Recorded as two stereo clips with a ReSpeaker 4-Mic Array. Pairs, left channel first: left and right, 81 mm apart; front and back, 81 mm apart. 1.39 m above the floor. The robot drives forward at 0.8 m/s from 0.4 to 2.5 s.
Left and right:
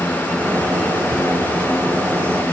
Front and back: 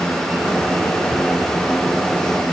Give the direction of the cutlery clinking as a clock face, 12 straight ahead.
No cutlery clinking in this recording.